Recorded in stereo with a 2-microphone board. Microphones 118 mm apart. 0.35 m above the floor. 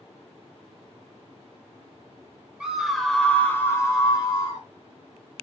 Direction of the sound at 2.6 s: 5° right (ahead or behind).